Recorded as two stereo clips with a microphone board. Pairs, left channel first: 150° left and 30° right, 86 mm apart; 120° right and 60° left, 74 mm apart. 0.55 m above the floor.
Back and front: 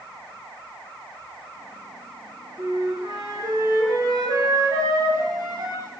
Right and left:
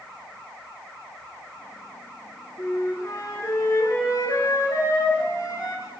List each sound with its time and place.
2.6 s a flute: 75° right, 5.5 m